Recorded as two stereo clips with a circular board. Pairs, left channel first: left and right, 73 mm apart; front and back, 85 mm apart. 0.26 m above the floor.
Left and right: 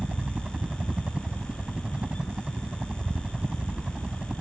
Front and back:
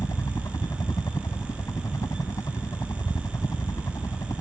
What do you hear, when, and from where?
0.0 s a helicopter: 20° right